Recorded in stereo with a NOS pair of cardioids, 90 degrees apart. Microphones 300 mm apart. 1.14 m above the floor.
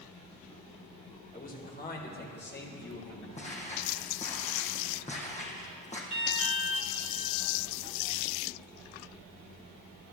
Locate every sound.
1.3 s a man speaking: 25° left, 3.5 m; by 3.3 s 35° left, 5 m
3.4 s footsteps: 20° left, 3.5 m
6.1 s an alarm: 20° left, 4 m